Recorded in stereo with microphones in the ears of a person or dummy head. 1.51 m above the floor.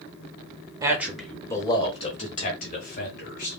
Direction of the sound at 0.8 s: 15° right (ahead or behind).